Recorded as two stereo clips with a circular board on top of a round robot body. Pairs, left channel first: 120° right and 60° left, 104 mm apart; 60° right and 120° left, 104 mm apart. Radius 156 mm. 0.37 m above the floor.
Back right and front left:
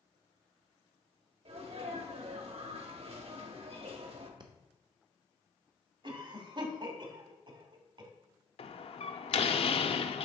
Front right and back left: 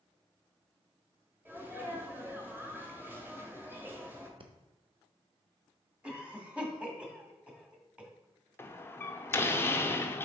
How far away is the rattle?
No rattle in this recording.